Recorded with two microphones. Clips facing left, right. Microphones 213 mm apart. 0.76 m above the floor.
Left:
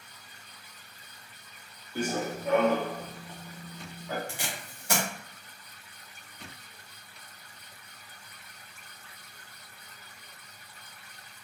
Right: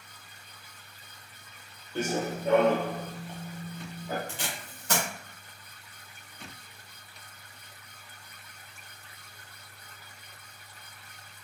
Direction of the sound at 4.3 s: 10° left (ahead or behind).